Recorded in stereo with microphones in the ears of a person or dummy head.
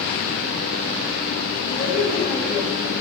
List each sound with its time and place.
1.7 s a woman speaking: 40° left (ahead or behind), 6.5 m; by 2.9 s 30° left (ahead or behind), 6 m